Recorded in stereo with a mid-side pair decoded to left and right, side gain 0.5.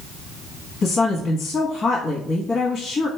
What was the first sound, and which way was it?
A woman speaking, 50° left.